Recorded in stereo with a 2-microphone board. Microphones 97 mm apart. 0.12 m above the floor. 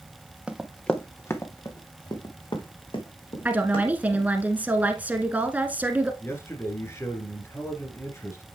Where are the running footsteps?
10° right (ahead or behind), 1.1 m; by 4.2 s 65° left (ahead or behind), 3.5 m.